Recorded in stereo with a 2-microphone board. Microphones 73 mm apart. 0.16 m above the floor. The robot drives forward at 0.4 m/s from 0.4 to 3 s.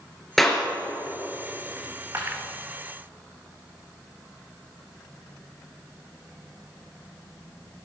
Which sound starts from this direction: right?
A dropped coin, at 1.8 s.